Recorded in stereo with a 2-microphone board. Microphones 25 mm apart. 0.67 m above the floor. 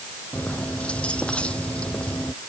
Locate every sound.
0.3 s keys jangling: 55° left (ahead or behind)